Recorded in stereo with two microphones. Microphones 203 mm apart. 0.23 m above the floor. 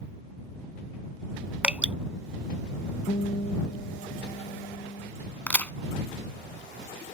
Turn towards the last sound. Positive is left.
turn(degrees=10)  # may be behind; listen again after turning